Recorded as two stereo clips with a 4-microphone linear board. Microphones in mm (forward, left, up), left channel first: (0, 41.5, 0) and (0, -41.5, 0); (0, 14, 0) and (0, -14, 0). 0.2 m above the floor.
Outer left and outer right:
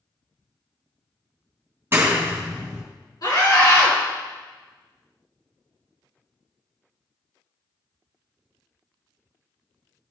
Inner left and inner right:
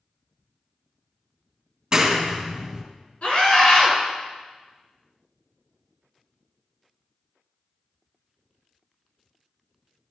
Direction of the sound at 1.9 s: 30° right (ahead or behind).